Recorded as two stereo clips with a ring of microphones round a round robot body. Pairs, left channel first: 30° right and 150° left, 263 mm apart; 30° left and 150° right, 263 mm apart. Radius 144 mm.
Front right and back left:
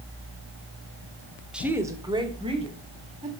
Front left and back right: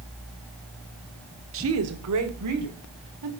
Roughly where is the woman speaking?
Behind right.